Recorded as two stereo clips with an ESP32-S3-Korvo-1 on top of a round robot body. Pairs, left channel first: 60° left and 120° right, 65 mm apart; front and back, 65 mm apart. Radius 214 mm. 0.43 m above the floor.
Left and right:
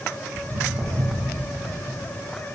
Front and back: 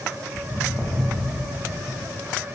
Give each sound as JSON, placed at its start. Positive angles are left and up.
{"t": 0.3, "sound": "footsteps", "azimuth_deg": -70, "distance_m": 0.8}